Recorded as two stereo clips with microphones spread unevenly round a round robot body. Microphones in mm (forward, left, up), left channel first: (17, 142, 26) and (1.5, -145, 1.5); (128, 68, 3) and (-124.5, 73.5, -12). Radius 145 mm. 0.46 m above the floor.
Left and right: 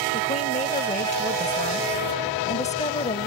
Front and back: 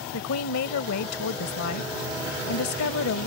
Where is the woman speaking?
20° left.